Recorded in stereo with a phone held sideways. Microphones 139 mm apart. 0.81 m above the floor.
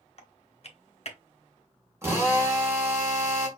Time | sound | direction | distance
0.2 | typing on a keyboard | 50° left (ahead or behind) | 1.0 m
2.0 | a drill | 20° right (ahead or behind) | 2 m